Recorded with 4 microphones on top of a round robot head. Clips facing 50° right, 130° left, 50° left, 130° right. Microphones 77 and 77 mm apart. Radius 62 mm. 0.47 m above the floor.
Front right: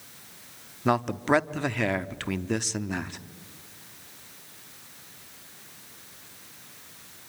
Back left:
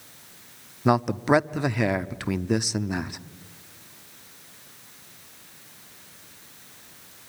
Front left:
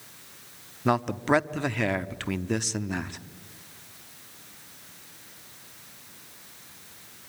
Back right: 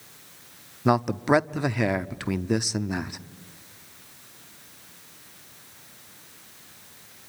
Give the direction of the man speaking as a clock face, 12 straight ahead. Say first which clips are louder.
Back left 3 dB, back right 2 dB; 6 o'clock.